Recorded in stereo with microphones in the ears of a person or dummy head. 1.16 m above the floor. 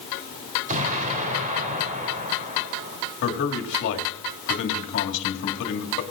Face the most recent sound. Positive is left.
turn(degrees=55)  # may be behind; listen again after turning